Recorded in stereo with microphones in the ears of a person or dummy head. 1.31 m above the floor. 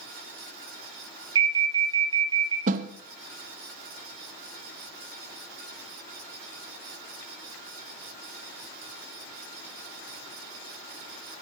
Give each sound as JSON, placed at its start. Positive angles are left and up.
{"t": 1.4, "sound": "an alarm", "side_deg": -25, "distance_m": 2.5}
{"t": 2.7, "sound": "a snare drum", "side_deg": -45, "distance_m": 0.6}